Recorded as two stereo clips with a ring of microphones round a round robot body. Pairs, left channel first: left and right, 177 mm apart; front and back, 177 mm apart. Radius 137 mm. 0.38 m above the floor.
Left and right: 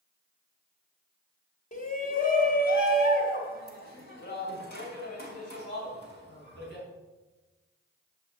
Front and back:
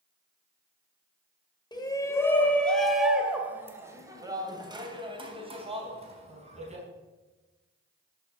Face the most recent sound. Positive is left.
turn(degrees=130)